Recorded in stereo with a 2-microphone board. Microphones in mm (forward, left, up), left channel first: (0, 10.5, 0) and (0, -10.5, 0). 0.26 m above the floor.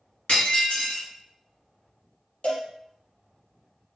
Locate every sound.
0.3 s breaking glass: 50° left (ahead or behind), 1.9 m
2.4 s a cowbell: 60° left (ahead or behind), 1.5 m